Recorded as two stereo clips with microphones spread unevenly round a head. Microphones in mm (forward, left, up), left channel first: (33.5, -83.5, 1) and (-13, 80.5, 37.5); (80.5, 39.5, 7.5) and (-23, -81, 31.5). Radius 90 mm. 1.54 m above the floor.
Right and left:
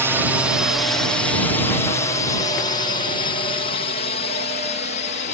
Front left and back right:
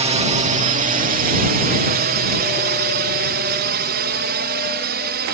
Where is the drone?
165° right; by 5.3 s 115° right.